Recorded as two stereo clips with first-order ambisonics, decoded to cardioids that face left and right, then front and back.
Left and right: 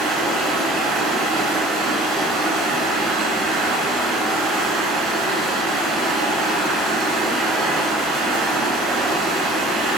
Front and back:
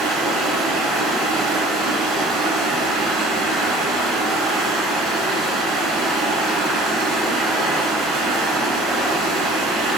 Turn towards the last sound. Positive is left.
turn(degrees=-140)